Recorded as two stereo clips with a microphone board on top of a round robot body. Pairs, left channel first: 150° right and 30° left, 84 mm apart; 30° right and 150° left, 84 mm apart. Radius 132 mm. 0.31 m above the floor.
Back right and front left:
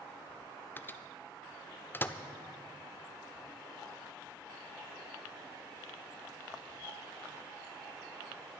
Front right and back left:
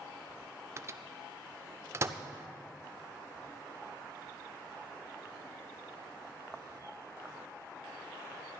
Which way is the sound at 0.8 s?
165° left.